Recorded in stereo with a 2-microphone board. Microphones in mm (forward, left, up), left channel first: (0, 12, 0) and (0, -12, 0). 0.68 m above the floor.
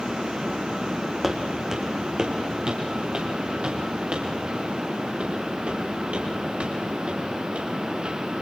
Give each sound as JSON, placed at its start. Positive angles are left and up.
{"t": 1.2, "sound": "footsteps", "side_deg": -15, "distance_m": 1.8}